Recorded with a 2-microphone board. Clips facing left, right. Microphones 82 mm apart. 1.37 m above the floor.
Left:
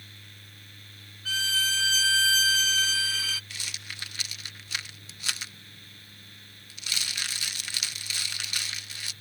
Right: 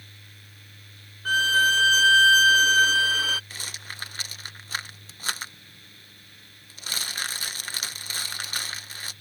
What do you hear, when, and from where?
1.2 s a violin: 45° right (ahead or behind)
3.5 s a rattle: 40° right (ahead or behind)